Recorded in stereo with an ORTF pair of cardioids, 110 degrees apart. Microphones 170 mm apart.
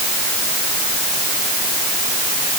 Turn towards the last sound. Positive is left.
No sound to turn to.